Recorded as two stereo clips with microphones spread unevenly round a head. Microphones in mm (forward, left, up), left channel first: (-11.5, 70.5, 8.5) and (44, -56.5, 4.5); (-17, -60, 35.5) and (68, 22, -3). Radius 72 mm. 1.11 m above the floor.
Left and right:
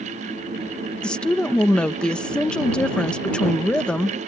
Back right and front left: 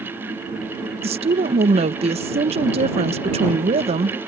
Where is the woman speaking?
30° left.